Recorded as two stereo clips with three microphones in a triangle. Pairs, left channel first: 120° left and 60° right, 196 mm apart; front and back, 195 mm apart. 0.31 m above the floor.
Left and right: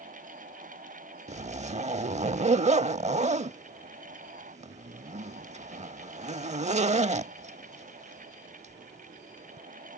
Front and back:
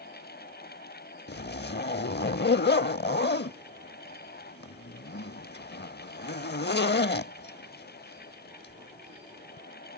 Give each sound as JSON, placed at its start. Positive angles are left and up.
{"t": 1.3, "sound": "a zipper", "azimuth_deg": -10}